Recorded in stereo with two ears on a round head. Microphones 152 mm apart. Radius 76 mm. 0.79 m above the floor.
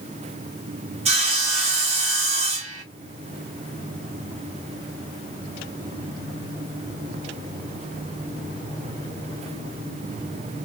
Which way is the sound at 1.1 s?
40° right (ahead or behind).